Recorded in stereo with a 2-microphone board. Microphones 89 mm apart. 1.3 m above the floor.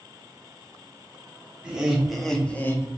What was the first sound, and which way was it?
Laughter, 10° right (ahead or behind).